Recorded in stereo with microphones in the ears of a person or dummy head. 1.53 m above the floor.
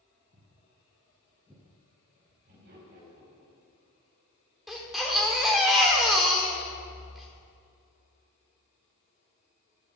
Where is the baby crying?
5° right (ahead or behind), 1.5 m.